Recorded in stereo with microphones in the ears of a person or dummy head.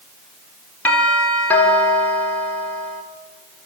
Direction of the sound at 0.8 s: 15° left (ahead or behind).